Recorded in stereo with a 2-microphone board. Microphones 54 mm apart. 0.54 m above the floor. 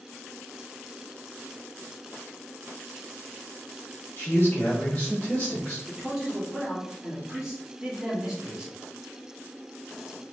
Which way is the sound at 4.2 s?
40° left (ahead or behind).